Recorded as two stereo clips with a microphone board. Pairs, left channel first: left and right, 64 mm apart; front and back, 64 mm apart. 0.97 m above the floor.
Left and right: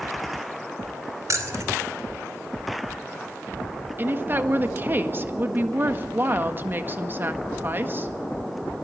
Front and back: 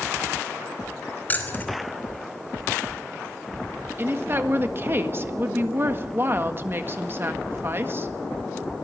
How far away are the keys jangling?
About 3 m.